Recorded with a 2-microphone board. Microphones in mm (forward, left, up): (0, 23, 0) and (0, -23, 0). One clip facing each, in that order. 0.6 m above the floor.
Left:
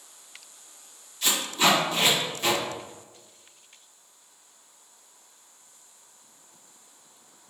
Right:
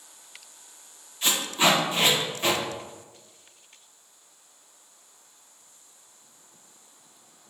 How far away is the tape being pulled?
About 1.4 m.